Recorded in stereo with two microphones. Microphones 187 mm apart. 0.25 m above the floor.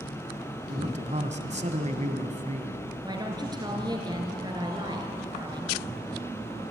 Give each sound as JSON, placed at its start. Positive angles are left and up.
{"t": 0.7, "sound": "a man speaking", "side_deg": -40, "distance_m": 1.8}
{"t": 3.0, "sound": "a woman speaking", "side_deg": -25, "distance_m": 3.5}